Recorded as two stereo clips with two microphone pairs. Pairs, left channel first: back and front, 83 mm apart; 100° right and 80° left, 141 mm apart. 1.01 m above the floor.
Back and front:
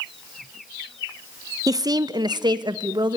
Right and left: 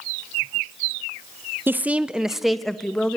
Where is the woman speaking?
10° left, 0.7 m; by 3.2 s 20° right, 1.4 m.